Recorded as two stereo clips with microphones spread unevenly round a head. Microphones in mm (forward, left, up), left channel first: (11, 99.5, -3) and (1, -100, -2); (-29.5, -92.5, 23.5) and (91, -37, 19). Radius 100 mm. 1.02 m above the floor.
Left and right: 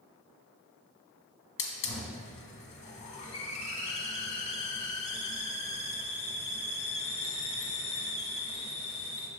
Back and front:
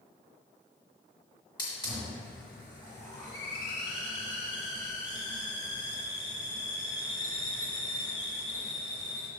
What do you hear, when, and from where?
1.6 s a hiss: 140° left, 1.0 m